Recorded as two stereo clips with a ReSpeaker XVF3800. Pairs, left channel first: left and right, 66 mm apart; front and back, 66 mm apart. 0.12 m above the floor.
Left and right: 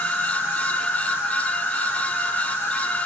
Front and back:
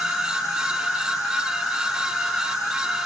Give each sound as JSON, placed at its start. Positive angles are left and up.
{"t": 0.0, "sound": "an insect", "azimuth_deg": 105, "distance_m": 1.4}